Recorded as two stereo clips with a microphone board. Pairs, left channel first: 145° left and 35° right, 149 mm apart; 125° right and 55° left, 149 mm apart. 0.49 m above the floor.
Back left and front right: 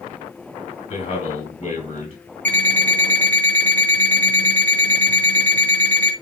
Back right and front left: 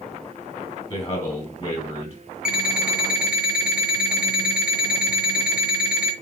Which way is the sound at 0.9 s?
170° right.